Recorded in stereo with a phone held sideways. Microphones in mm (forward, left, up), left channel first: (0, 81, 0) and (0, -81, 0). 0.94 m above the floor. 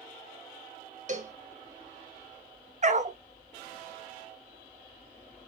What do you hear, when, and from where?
1.1 s a cowbell: 50° right (ahead or behind), 0.7 m
2.8 s a dog barking: 45° right (ahead or behind), 0.6 m